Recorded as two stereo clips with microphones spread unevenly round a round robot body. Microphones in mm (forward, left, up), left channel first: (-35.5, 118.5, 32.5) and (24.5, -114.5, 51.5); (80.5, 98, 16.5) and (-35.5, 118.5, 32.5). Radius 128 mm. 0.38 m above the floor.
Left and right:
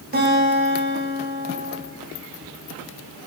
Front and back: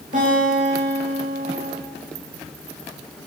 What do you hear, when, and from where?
0.1 s a guitar: 130° right, 5 m